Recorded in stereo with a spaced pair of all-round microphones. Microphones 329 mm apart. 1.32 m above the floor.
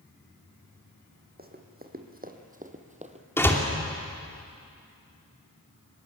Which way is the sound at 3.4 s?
5° left (ahead or behind).